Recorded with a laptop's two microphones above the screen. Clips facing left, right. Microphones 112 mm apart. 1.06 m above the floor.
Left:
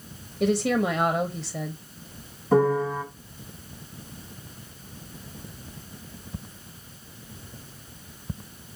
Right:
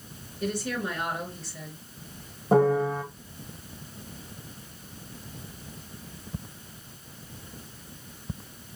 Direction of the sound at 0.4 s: 75° left (ahead or behind).